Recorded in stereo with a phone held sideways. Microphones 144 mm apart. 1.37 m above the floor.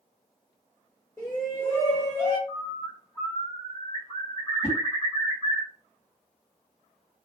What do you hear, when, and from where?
1.2 s a shout: 20° left (ahead or behind), 0.8 m; by 2.4 s 50° left (ahead or behind), 1.7 m
2.5 s a bird: 35° left (ahead or behind), 2 m
4.6 s a whoosh: 45° left (ahead or behind), 2.5 m